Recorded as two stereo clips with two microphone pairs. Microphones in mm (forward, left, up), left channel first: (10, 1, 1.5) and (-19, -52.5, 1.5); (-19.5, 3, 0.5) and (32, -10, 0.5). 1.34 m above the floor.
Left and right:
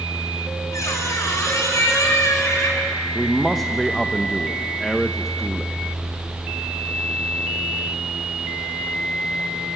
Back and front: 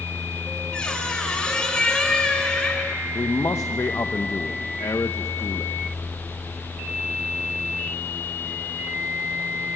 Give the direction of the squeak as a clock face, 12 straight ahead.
9 o'clock.